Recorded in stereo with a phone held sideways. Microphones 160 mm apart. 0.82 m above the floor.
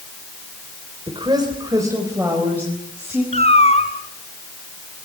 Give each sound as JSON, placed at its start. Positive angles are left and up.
{"t": 1.1, "sound": "a woman speaking", "side_deg": -30, "distance_m": 3.5}
{"t": 3.3, "sound": "a cat meowing", "side_deg": 40, "distance_m": 3.0}